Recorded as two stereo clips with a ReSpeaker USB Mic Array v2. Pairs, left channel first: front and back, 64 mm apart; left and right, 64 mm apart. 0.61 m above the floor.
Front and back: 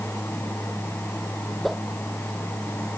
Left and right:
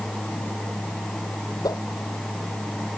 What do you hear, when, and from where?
1.6 s a whoosh: 90° left